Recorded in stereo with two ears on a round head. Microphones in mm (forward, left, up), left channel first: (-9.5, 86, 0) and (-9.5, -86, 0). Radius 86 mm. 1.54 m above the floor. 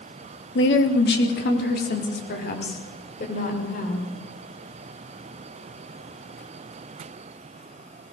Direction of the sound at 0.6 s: 70° left (ahead or behind).